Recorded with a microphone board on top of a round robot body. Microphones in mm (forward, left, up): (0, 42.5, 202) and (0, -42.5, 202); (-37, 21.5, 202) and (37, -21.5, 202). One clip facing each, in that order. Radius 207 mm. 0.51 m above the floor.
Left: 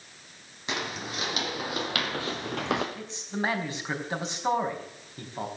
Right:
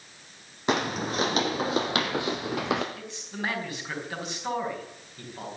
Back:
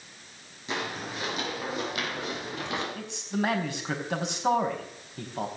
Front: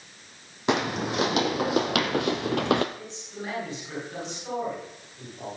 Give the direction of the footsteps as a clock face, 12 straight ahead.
2 o'clock.